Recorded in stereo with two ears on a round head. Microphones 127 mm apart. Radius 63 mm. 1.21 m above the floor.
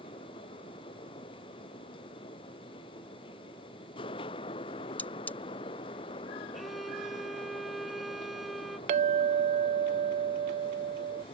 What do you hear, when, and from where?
5.0 s cutlery clinking: 10° left (ahead or behind)
6.5 s a violin: centre (ahead or behind)
8.9 s a clink: 50° right (ahead or behind)